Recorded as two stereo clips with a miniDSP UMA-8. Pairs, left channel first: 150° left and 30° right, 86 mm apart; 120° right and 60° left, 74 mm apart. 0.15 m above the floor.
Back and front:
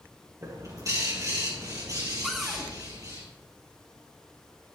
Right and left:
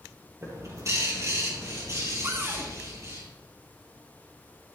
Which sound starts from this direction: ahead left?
A cupboard door, at 2.2 s.